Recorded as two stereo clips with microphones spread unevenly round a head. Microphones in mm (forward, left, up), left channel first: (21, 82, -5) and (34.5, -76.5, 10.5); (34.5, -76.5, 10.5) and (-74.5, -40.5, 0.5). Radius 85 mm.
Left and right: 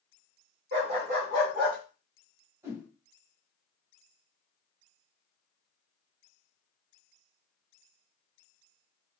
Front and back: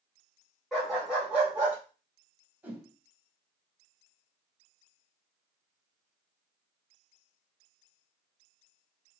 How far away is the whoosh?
About 1.6 m.